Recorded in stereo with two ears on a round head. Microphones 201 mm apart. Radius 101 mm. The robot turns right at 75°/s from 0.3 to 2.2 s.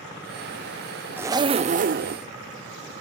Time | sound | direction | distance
1.2 | a zipper | 165° right | 0.6 m